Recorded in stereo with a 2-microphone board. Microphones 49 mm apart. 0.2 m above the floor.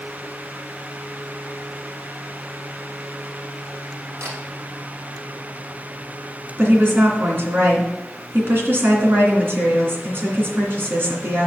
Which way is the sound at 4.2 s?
65° right (ahead or behind).